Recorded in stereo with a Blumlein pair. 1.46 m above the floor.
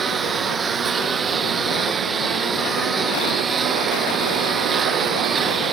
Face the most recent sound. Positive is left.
turn(degrees=-20)